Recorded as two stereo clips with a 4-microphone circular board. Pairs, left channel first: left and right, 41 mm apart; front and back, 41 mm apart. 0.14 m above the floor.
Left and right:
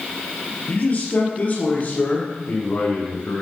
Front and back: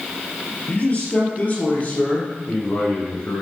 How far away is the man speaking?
About 2.5 m.